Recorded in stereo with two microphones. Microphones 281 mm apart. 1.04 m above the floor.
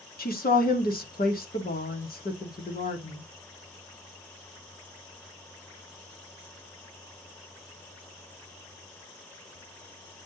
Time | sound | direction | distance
0.2 | a woman speaking | 30° left (ahead or behind) | 1.2 m